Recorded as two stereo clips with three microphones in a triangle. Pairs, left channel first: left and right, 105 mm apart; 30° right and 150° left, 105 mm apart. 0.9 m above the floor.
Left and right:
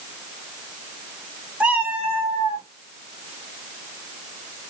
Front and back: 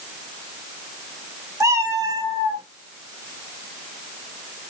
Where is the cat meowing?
160° right, 0.8 m.